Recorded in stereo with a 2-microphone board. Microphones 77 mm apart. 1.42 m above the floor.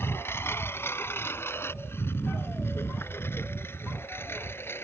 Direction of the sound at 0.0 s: 30° left (ahead or behind).